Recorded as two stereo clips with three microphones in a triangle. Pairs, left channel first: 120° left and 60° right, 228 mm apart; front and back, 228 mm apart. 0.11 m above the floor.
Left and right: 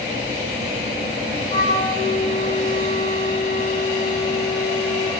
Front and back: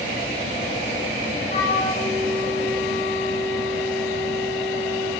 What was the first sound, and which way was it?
A flute, 60° left.